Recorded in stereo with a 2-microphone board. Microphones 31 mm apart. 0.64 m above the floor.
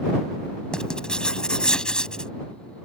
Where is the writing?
30° left (ahead or behind).